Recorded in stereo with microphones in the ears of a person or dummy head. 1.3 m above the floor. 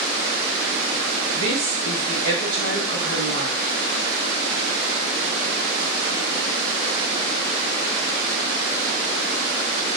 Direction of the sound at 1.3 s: 20° right (ahead or behind).